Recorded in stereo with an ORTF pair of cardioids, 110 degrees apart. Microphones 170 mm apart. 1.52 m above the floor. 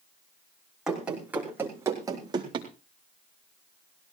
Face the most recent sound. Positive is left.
turn(degrees=-35)